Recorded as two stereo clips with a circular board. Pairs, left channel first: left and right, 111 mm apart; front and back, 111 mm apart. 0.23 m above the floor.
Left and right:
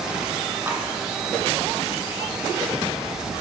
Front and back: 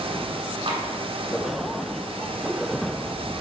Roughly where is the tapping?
Behind right.